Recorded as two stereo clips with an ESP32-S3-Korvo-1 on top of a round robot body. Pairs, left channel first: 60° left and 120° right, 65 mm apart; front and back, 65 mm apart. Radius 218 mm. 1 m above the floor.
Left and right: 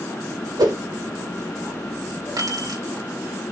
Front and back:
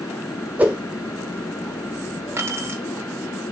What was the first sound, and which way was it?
A whoosh, 115° right.